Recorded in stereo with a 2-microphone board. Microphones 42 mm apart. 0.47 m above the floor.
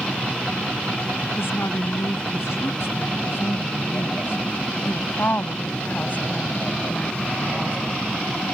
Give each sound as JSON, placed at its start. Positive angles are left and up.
{"t": 1.4, "sound": "a woman speaking", "side_deg": 75}